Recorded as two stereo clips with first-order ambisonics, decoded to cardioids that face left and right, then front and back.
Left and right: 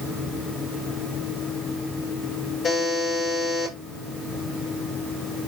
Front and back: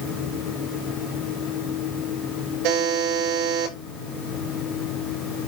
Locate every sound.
2.6 s a buzzer: 160° left, 9 m